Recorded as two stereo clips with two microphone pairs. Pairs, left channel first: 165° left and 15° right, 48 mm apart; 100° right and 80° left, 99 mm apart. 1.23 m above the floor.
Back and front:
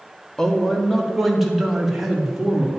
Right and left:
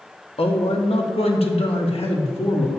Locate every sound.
0.4 s a man speaking: 115° right, 1.8 m; by 2.8 s 90° right, 3 m